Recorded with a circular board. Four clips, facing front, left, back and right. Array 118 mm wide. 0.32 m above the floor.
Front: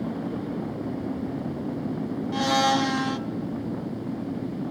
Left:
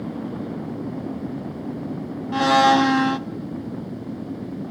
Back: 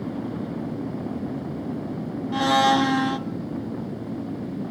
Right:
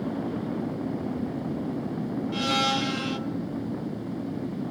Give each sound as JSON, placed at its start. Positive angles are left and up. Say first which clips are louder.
{"t": 2.3, "sound": "a blender", "louder": "left 13 dB, back 4 dB", "azimuth_deg": 105, "distance_m": 0.6}